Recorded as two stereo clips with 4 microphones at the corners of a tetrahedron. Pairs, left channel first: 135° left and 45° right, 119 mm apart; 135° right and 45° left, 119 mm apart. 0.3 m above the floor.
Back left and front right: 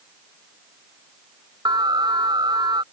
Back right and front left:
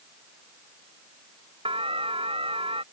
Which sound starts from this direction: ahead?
An alarm, at 1.6 s.